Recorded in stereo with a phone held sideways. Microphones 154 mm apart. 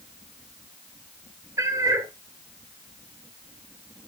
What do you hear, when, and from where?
1.6 s a cat meowing: 20° right (ahead or behind), 1.0 m